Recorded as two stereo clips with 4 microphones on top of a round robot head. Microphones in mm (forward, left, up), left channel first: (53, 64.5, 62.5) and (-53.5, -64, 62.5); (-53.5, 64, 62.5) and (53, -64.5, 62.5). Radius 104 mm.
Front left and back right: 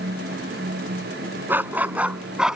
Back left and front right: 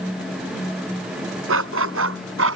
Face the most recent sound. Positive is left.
turn(degrees=-45)